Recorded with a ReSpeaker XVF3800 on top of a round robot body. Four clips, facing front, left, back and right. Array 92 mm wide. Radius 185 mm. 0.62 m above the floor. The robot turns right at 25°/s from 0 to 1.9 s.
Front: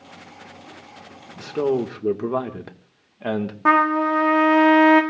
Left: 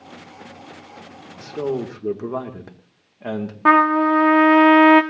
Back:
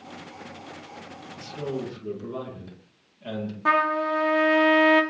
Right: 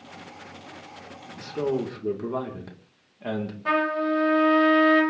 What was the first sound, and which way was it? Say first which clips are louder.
A man speaking: left 2 dB, front 10 dB; straight ahead.